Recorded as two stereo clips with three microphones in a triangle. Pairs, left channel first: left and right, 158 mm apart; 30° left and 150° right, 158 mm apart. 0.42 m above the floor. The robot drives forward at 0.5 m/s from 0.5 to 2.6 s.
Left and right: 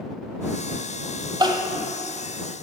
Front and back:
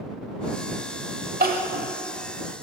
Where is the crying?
150° right, 0.9 m; by 1.9 s 155° right, 1.1 m.